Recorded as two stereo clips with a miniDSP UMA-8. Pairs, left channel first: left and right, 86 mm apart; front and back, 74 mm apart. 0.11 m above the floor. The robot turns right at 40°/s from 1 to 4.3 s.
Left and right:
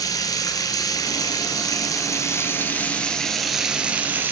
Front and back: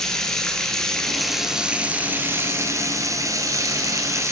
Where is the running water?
80° left, 1.9 m; by 4.3 s 145° right, 1.9 m.